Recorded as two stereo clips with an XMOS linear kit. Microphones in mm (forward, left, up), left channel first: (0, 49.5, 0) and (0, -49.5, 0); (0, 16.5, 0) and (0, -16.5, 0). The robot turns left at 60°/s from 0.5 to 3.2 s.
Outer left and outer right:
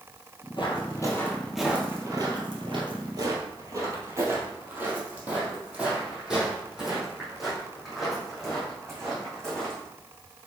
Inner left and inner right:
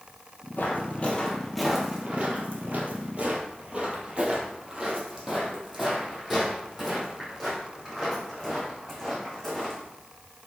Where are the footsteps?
60° left (ahead or behind), 2.5 m; by 9.8 s 5° left (ahead or behind), 5 m.